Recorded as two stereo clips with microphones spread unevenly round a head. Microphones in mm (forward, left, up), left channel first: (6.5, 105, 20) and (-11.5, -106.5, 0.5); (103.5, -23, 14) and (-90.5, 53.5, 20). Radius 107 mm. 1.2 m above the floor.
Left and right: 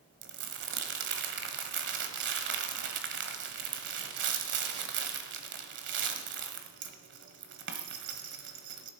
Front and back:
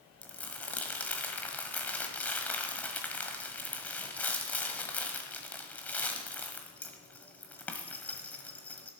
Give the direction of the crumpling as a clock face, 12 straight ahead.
3 o'clock.